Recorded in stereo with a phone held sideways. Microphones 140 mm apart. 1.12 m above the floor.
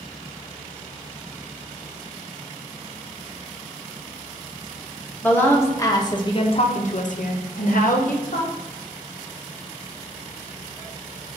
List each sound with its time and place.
5.2 s a woman speaking: 15° left (ahead or behind), 1.2 m; by 8.5 s 60° left (ahead or behind), 1.1 m